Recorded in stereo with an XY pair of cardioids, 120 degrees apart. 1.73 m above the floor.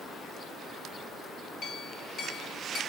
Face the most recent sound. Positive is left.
turn(degrees=65)